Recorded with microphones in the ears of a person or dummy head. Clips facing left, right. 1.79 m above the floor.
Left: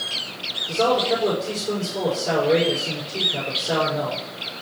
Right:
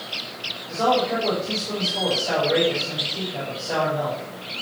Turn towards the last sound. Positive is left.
turn(degrees=85)